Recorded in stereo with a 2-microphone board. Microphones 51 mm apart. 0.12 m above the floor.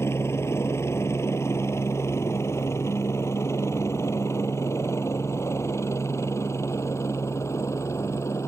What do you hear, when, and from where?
0.0 s a helicopter: 60° left (ahead or behind); by 8.5 s 70° left (ahead or behind)